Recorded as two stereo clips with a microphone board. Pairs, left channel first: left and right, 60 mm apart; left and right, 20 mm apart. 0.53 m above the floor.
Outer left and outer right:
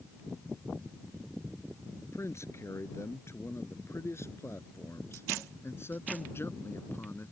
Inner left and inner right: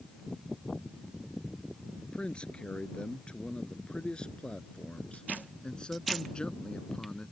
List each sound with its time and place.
2.0 s a man speaking: 50° left (ahead or behind); by 7.3 s 40° left (ahead or behind)